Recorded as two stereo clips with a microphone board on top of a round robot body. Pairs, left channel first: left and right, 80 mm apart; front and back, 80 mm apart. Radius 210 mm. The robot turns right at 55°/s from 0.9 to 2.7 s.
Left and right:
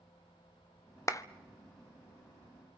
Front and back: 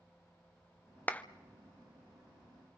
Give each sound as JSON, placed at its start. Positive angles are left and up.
{"t": 1.1, "sound": "a clap", "azimuth_deg": 60, "distance_m": 1.1}